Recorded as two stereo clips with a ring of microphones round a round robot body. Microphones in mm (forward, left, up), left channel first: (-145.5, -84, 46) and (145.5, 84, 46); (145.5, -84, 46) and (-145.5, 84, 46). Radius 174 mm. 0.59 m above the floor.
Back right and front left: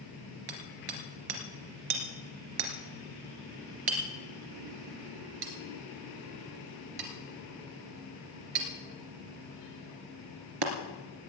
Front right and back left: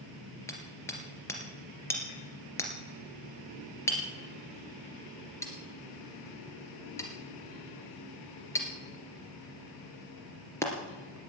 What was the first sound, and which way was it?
Hammering, 50° left.